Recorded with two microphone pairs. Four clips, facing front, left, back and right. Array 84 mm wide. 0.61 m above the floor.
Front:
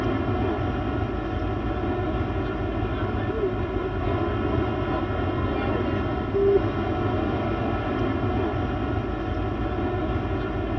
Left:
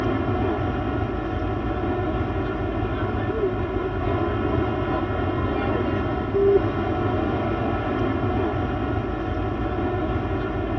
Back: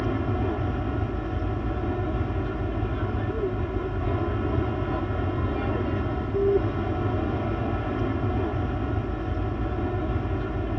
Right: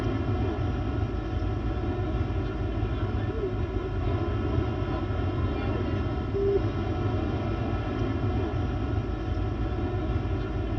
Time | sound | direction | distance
0.0 | an aircraft | 70° left | ?